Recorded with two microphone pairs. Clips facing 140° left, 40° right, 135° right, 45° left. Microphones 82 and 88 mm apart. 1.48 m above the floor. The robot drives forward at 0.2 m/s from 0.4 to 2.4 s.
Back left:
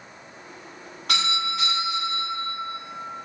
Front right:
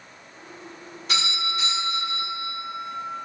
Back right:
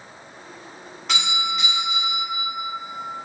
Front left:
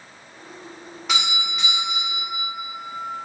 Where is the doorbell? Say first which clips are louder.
Back left 2 dB, back right 1 dB; 130° left, 1.2 m; by 2.5 s 140° left, 1.4 m.